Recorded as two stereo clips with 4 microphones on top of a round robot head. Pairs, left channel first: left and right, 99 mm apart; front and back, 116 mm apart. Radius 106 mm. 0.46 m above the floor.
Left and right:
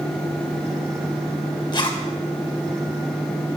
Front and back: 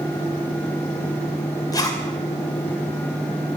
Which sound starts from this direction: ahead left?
A zipper, at 1.7 s.